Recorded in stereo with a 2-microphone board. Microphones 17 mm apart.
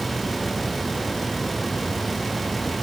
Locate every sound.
Only background noise.